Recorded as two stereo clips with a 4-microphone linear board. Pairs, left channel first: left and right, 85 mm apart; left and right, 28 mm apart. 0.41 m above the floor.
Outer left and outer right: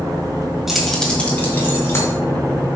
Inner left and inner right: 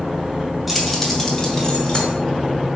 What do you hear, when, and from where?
0.7 s keys jangling: 5° right (ahead or behind), 1.6 m; by 2.1 s 30° left (ahead or behind), 3 m